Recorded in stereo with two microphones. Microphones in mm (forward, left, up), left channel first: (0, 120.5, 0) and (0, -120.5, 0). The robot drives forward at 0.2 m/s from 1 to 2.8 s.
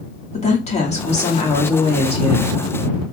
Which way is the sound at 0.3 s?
30° left (ahead or behind).